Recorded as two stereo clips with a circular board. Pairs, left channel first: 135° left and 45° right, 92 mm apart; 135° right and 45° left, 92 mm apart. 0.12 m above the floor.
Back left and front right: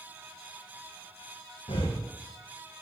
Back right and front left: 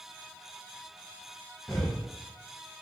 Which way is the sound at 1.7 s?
145° left.